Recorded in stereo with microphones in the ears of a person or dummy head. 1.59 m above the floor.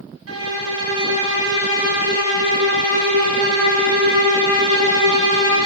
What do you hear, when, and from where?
0.3 s a violin: 85° right, 1.4 m